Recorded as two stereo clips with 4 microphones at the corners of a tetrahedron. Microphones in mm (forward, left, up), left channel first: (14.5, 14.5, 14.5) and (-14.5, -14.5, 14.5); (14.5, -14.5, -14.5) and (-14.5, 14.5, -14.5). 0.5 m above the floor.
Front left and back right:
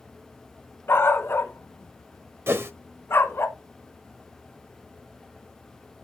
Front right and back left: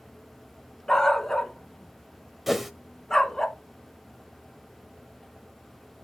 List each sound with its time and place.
0.9 s a dog barking: 35° left, 1.3 m
2.5 s a whoosh: 135° right, 0.9 m